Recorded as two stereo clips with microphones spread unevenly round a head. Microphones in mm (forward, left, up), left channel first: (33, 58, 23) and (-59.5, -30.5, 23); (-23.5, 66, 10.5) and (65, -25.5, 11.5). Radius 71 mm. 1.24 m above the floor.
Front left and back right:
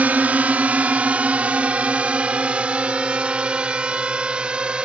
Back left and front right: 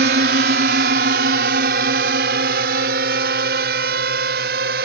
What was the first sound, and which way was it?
A drone, 55° right.